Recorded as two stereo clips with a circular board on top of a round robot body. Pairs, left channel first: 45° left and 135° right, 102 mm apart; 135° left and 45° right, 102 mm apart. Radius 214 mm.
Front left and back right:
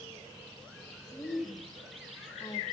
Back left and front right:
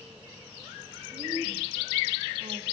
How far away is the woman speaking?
About 2 m.